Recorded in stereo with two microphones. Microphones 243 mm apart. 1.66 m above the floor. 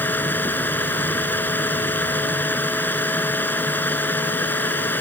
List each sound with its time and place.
0.0 s running water: 5° left (ahead or behind)